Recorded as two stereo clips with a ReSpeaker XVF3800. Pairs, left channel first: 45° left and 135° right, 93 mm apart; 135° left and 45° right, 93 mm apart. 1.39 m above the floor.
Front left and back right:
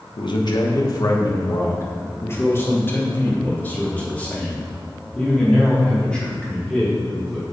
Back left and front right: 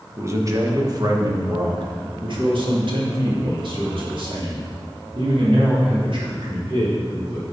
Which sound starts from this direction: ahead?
A man speaking, at 0.2 s.